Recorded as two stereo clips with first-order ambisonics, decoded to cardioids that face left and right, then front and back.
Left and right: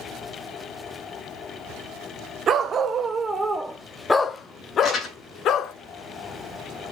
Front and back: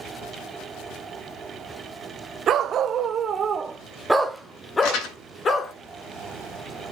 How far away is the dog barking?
About 1.3 m.